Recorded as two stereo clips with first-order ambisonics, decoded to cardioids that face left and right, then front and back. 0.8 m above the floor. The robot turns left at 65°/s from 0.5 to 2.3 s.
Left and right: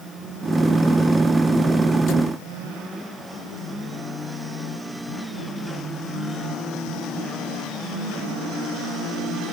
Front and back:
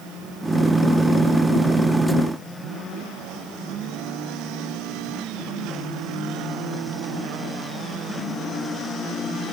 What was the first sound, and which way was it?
Only background noise.